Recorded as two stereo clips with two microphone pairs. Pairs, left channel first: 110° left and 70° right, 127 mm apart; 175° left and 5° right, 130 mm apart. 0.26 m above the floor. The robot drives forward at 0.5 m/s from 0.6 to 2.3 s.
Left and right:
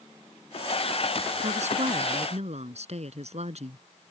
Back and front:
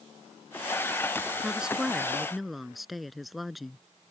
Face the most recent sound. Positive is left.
turn(degrees=-95)